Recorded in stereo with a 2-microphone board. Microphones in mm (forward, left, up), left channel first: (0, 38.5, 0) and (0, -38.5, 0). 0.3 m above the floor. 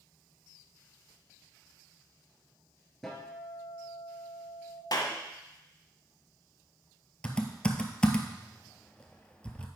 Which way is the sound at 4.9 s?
60° left (ahead or behind).